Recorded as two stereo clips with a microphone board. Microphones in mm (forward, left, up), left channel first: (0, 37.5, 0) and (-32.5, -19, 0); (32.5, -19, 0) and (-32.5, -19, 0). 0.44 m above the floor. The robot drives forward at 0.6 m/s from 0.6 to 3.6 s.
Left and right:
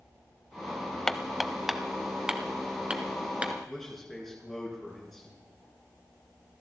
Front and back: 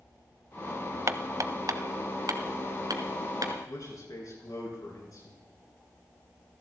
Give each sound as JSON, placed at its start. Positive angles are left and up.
{"t": 1.1, "sound": "hammering", "azimuth_deg": 145, "distance_m": 0.6}
{"t": 3.7, "sound": "a man speaking", "azimuth_deg": -25, "distance_m": 7.0}